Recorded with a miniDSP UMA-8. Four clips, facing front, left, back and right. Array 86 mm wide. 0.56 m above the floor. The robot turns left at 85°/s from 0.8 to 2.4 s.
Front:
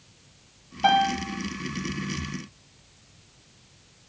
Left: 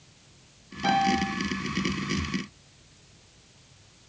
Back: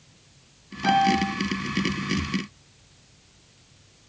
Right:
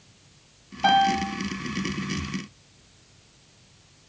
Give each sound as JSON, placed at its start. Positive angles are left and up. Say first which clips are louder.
{"t": 0.8, "sound": "a piano", "louder": "right 4 dB, back 1 dB", "azimuth_deg": -40, "distance_m": 2.0}